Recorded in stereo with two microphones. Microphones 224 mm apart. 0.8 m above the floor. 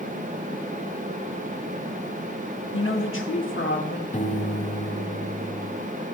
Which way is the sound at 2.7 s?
60° left (ahead or behind).